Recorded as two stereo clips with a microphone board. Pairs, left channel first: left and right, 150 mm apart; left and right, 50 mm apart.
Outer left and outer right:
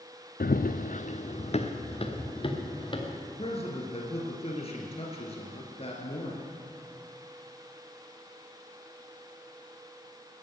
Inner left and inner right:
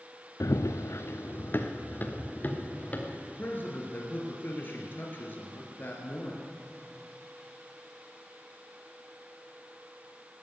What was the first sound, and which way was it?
Running footsteps, 85° left.